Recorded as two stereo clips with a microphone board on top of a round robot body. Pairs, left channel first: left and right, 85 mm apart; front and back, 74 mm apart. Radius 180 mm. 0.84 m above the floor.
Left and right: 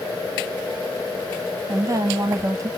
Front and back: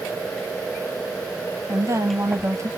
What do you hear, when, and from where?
1.7 s a woman speaking: 135° right, 1.2 m